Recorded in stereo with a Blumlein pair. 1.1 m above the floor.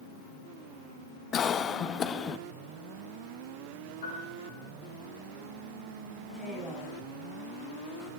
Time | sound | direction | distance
1.3 | a cough | 25° left | 1.0 m
4.0 | a piano | 65° left | 8 m
6.3 | a woman speaking | 5° left | 8 m